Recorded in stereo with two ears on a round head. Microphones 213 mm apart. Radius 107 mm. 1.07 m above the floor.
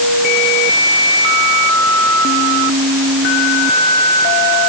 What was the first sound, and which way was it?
Only background noise.